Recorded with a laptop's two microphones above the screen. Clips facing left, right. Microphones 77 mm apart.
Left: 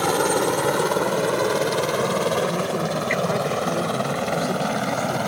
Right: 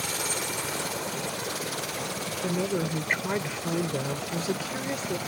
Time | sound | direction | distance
0.0 | a helicopter | 65° left (ahead or behind) | ?
2.4 | a woman speaking | 10° right (ahead or behind) | ?